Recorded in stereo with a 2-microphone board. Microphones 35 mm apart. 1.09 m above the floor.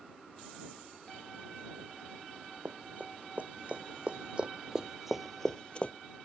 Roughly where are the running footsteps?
Right.